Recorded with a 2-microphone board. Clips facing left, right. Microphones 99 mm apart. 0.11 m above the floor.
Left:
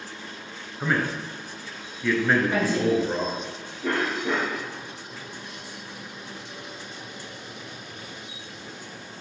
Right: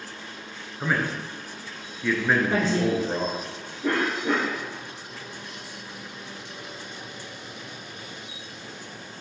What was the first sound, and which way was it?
A man speaking, 5° right (ahead or behind).